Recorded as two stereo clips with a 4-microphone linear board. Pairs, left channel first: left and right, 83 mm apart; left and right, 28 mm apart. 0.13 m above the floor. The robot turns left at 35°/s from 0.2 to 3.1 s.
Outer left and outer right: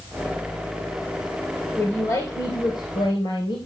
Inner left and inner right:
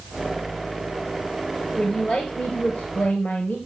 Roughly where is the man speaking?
Behind left.